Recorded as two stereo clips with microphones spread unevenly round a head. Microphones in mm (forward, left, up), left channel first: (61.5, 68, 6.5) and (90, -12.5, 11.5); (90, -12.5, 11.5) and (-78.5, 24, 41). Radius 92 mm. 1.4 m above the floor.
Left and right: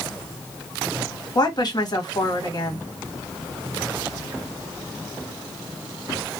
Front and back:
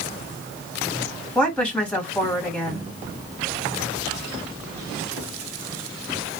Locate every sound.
1.4 s a woman speaking: 70° left, 1.8 m